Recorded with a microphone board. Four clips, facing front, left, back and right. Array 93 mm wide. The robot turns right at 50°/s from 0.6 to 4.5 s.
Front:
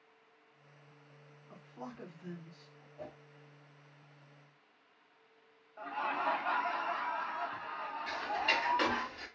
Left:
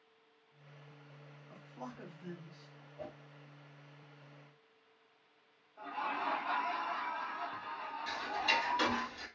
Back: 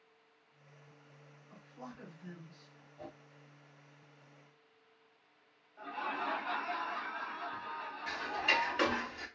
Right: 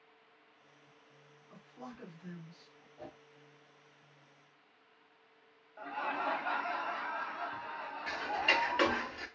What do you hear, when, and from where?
1.5 s a man speaking: 30° left, 1.4 m; by 2.9 s 100° left, 1.4 m
3.0 s a whoosh: 40° left, 1.5 m; by 3.2 s 55° left, 1.5 m
5.8 s laughter: 40° right, 1.0 m
8.1 s ticking: 105° right, 0.5 m